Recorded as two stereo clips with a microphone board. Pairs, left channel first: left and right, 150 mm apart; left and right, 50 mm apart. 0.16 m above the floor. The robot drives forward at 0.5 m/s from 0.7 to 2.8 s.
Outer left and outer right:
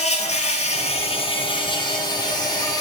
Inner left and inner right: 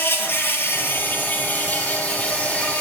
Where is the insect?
50° left (ahead or behind), 0.9 m; by 2.8 s 25° left (ahead or behind), 1.8 m.